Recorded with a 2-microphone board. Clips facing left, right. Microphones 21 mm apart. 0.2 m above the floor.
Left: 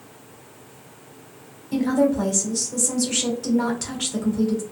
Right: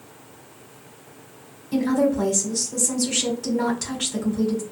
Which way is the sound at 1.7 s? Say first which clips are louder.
Left 1 dB; 10° left (ahead or behind).